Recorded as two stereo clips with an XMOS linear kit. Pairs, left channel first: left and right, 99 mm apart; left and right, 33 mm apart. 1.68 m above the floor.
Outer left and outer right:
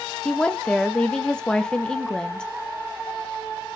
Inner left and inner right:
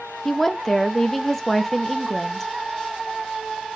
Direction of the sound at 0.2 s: 10° left (ahead or behind).